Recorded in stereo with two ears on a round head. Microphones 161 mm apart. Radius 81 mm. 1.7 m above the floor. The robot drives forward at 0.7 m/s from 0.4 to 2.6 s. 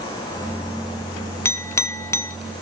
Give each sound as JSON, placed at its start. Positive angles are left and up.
{"t": 1.4, "sound": "a clink", "side_deg": 15, "distance_m": 0.7}